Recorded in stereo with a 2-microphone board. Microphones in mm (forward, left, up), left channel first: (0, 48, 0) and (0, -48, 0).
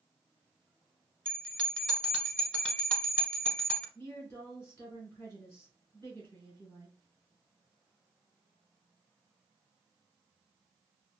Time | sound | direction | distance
1.2 | a bell | 15° left (ahead or behind) | 0.9 m
4.0 | a woman speaking | 20° left (ahead or behind) | 1.5 m